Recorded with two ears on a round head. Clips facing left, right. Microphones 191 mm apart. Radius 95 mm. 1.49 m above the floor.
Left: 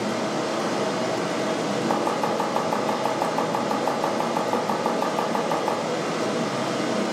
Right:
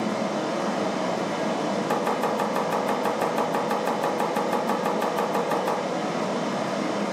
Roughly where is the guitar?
No guitar in this recording.